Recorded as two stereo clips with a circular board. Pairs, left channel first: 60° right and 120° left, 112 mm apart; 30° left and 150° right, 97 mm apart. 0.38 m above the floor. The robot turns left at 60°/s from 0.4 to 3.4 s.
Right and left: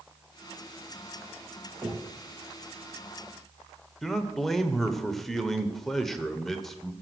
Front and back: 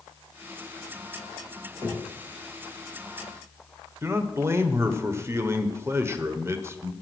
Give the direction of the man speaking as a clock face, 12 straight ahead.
5 o'clock.